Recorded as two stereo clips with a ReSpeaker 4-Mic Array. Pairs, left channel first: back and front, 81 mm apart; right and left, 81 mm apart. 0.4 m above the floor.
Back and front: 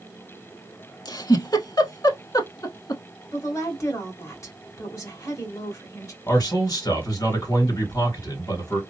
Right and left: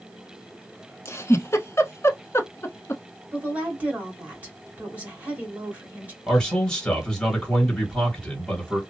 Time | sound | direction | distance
1.1 | a giggle | 145° right | 0.7 m
3.3 | a woman speaking | 155° left | 1.7 m
6.3 | a man speaking | 170° right | 2.5 m